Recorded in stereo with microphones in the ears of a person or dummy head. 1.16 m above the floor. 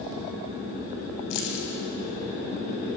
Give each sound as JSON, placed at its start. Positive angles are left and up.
{"t": 1.3, "sound": "keys jangling", "side_deg": 60, "distance_m": 5.0}